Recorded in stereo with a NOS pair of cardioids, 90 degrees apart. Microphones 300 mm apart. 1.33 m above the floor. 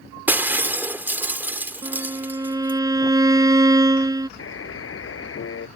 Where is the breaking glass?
5° right.